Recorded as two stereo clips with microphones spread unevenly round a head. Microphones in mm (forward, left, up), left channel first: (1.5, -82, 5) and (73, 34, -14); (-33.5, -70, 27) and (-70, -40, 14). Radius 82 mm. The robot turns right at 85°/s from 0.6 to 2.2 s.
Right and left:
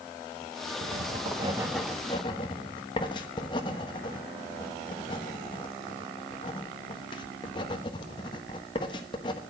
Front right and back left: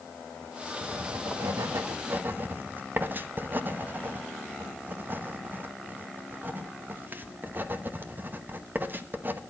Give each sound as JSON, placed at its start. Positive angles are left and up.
{"t": 0.8, "sound": "writing", "azimuth_deg": 70, "distance_m": 1.1}